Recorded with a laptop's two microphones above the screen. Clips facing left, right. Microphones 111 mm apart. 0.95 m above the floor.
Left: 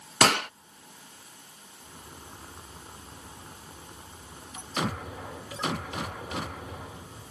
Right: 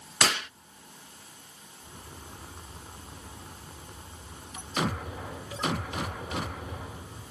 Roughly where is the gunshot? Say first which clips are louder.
Left 6 dB; left.